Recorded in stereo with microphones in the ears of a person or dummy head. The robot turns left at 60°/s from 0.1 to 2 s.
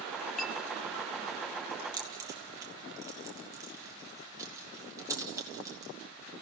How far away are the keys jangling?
About 1.5 m.